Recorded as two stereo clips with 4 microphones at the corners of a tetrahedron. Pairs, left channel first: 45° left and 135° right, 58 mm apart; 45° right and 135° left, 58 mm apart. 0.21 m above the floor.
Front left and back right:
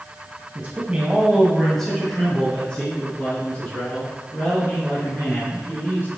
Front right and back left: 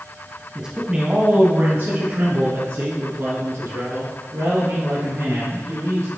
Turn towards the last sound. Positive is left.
turn(degrees=105)